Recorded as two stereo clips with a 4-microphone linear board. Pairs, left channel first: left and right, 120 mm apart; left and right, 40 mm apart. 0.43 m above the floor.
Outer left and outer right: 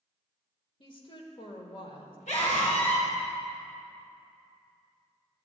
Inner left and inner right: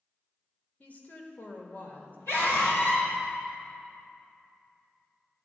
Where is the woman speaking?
40° left (ahead or behind), 1.4 m; by 2.2 s 45° left (ahead or behind), 1.6 m.